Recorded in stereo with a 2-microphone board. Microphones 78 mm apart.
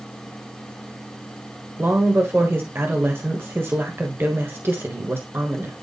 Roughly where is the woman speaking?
Right.